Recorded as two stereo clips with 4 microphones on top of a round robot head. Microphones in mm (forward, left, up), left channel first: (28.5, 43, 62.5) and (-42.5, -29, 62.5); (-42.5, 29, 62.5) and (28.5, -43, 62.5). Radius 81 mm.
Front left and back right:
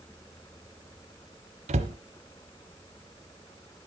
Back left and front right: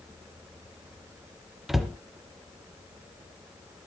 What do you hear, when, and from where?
1.7 s a cupboard door: 135° right, 1.0 m